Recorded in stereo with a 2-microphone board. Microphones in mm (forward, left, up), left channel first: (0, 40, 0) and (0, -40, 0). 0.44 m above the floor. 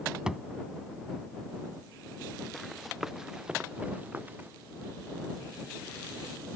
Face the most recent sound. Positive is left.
turn(degrees=-25)  # may be behind; listen again after turning